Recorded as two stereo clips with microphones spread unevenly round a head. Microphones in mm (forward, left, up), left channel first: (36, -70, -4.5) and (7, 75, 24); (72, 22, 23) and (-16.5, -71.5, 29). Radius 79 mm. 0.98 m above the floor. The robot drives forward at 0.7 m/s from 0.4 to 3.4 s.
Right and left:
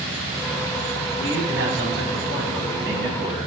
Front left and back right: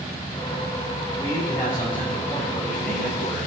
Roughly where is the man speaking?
Behind left.